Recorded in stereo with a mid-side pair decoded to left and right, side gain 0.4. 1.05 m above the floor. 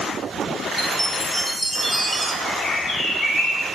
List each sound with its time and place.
0.8 s a chime: 10° left, 0.8 m
2.5 s a bird: 60° left, 2.5 m